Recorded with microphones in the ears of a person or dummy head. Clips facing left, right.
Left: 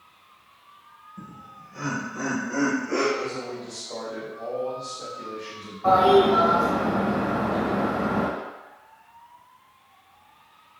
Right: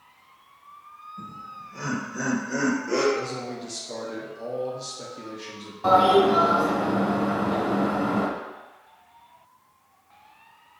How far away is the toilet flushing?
About 2.0 m.